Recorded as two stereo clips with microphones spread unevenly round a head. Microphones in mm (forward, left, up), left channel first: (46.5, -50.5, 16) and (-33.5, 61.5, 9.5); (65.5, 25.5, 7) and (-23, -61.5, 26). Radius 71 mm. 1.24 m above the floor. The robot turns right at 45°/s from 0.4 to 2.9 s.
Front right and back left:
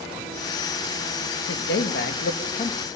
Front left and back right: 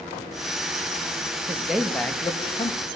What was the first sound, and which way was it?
A man speaking, 60° right.